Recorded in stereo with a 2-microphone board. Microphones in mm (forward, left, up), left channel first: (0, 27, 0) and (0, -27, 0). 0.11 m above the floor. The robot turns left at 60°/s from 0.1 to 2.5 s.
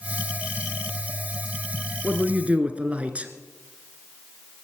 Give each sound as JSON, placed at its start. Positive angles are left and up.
{"t": 2.0, "sound": "a man speaking", "side_deg": -20, "distance_m": 1.4}